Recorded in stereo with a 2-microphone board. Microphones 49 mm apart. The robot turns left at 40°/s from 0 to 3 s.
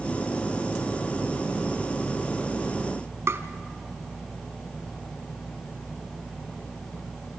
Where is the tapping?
60° right (ahead or behind), 1.4 m.